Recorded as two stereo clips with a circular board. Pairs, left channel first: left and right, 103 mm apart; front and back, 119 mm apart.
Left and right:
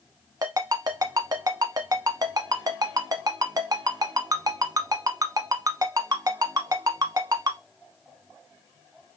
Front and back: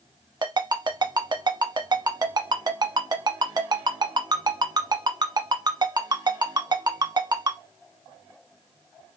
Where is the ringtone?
135° right, 0.8 m.